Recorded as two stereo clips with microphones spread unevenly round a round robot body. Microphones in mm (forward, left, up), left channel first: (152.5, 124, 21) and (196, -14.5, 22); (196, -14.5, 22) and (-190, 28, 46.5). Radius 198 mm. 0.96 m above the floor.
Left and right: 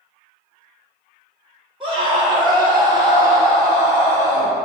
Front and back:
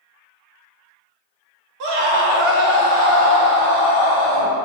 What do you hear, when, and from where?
1.8 s a scream: 160° right, 2.0 m; by 4.5 s 160° left, 3.5 m